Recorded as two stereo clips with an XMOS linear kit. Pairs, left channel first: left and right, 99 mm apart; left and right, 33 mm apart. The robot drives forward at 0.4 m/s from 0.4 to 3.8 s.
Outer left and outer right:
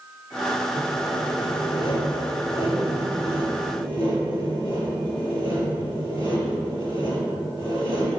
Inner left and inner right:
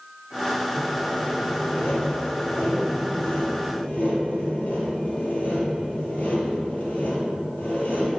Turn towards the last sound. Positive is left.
turn(degrees=55)  # may be behind; listen again after turning